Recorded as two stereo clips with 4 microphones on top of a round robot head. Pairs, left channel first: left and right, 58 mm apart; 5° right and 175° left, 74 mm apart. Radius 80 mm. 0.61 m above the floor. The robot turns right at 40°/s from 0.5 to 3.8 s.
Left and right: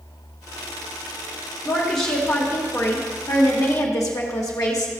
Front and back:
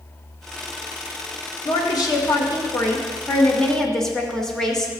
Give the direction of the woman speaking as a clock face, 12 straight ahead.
12 o'clock.